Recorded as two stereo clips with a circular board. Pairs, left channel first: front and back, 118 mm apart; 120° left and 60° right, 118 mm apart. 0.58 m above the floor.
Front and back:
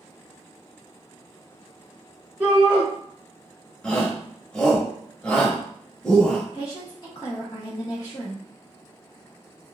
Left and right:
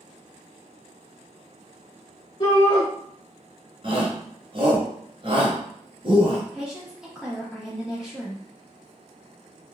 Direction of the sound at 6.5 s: 20° left.